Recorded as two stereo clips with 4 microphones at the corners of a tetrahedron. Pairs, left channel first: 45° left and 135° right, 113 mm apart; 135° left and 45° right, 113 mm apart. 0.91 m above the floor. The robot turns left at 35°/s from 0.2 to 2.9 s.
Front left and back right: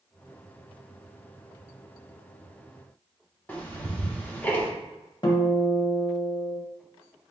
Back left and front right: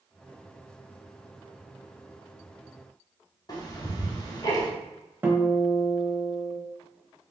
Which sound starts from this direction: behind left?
Ticking, at 3.5 s.